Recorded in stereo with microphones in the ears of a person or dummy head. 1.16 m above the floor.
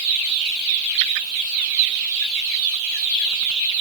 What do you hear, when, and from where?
Only background noise.